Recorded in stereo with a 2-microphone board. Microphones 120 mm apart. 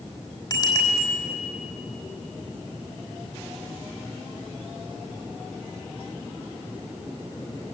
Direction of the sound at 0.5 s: 30° left (ahead or behind).